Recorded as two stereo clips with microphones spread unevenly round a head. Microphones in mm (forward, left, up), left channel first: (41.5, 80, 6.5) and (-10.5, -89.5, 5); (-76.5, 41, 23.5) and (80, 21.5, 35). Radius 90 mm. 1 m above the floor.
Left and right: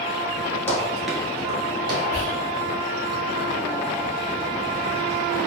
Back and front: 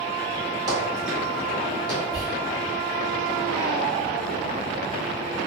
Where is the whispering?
120° right, 0.8 m.